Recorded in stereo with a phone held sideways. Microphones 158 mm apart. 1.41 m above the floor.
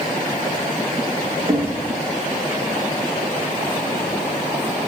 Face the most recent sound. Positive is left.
turn(degrees=-35)  # may be behind; listen again after turning